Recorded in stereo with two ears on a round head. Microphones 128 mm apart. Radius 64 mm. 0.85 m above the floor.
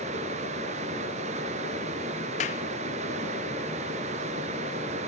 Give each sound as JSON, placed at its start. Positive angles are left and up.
{"t": 0.0, "sound": "running water", "side_deg": -50, "distance_m": 1.6}
{"t": 2.4, "sound": "a clap", "side_deg": 50, "distance_m": 0.9}